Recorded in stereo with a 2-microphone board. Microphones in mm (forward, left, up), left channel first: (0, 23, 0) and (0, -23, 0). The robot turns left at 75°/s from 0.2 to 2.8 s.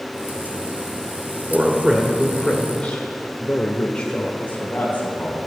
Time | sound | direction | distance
1.5 | a man speaking | 15° right (ahead or behind) | 1.5 m
4.4 | a man speaking | 40° left (ahead or behind) | 3.5 m